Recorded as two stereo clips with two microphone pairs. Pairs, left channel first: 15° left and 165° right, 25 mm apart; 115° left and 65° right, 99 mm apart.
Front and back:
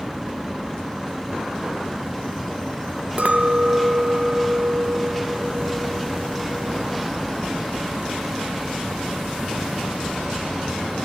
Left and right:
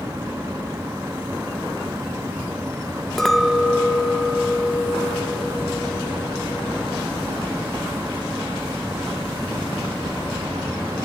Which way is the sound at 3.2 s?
155° right.